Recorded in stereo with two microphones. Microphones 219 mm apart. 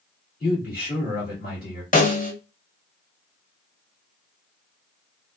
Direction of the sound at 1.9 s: 40° left (ahead or behind).